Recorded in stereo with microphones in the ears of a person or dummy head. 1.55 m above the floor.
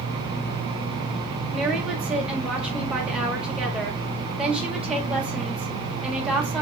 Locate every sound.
1.5 s a woman speaking: 5° right (ahead or behind), 1.4 m